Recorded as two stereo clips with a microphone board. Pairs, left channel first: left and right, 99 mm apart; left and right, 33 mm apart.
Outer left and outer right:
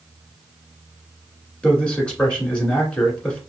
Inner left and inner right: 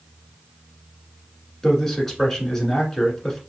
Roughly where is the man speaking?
Centre.